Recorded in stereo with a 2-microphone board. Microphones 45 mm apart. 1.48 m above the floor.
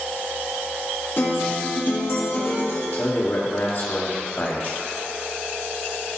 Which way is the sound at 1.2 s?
60° left (ahead or behind).